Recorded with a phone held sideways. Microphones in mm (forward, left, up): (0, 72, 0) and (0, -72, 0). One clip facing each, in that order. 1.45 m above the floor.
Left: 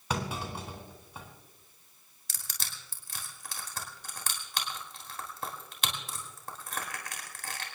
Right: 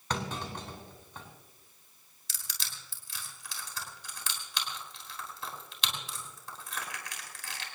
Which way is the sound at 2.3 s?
50° left (ahead or behind).